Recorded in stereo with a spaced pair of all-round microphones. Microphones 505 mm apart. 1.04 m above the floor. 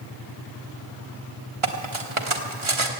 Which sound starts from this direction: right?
Cutlery clinking, at 1.6 s.